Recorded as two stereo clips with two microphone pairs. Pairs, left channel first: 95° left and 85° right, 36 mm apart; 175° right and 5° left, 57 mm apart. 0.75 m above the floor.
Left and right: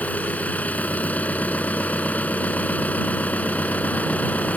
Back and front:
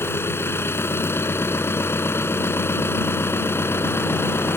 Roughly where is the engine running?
Behind left.